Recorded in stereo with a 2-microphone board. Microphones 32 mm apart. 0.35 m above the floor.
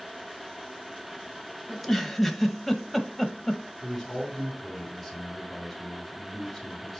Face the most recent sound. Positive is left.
turn(degrees=0)  # may be behind; listen again after turning